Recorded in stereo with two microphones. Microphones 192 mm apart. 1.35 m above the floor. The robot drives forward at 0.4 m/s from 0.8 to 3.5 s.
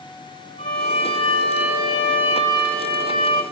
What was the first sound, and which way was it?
A violin, 30° left (ahead or behind).